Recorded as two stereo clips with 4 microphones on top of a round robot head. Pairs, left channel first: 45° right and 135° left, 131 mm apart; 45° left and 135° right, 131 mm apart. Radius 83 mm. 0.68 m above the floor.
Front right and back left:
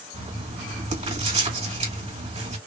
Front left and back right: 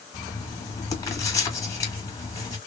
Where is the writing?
105° left, 1.9 m.